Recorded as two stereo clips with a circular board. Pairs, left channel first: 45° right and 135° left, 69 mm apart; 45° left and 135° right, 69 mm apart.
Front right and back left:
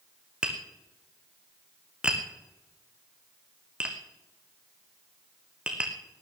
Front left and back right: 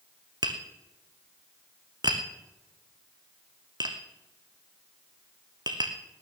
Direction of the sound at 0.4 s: 150° right.